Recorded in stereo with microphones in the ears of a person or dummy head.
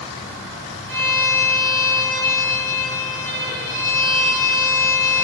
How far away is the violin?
About 1.7 m.